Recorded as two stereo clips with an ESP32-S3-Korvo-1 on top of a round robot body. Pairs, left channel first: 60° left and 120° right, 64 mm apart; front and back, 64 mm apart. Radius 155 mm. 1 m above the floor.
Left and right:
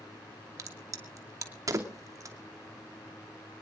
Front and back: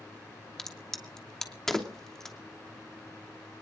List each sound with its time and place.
0.6 s a crack: 80° right, 2.5 m